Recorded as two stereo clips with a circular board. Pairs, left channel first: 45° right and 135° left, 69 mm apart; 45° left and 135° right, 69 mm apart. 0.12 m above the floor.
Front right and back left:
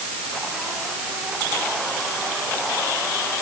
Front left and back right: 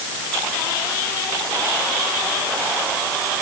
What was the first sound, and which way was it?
Only background noise.